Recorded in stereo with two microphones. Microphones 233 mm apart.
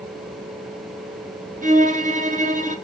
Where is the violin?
35° right (ahead or behind), 1.2 m.